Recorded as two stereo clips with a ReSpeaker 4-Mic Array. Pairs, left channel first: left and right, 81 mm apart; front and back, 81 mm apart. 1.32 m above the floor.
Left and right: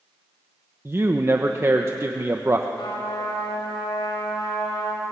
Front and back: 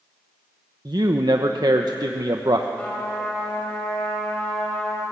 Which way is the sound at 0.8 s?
145° right.